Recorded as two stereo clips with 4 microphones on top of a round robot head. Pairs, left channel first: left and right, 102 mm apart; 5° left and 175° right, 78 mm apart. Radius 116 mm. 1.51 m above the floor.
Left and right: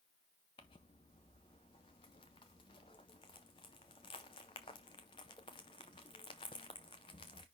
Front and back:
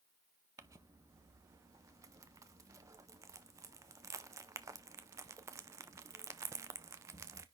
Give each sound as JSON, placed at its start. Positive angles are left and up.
{"t": 0.6, "sound": "crumpling", "azimuth_deg": 140, "distance_m": 0.5}